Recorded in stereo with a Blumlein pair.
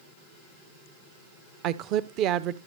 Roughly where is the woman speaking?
Ahead right.